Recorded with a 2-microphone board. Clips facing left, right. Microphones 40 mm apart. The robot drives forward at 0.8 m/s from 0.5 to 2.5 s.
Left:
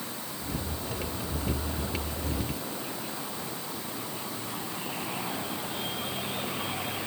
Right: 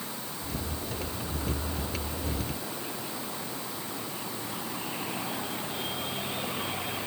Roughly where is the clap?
No clap in this recording.